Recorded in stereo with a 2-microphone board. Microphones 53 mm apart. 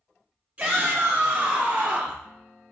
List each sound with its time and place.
0.6 s a shout: 25° right (ahead or behind), 1.1 m; by 2.2 s 20° right (ahead or behind), 1.4 m